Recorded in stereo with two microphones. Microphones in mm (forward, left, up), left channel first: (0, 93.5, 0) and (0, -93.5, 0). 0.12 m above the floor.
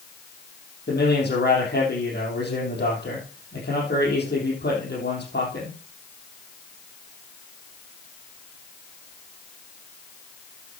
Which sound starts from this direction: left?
A man speaking, at 0.9 s.